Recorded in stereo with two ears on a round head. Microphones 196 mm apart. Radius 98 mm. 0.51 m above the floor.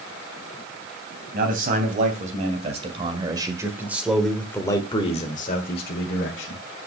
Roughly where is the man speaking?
Right.